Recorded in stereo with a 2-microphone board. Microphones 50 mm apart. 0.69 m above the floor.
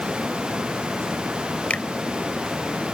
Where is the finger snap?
25° left (ahead or behind).